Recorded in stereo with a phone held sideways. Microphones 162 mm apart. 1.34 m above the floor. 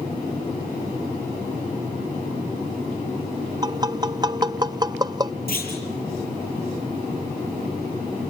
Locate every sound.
3.6 s tapping: 25° right (ahead or behind), 0.7 m
5.5 s a clunk: 70° left (ahead or behind), 7.5 m